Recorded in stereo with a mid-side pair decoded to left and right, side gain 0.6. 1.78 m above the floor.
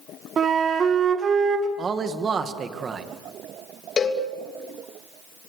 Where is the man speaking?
35° right, 2.5 m.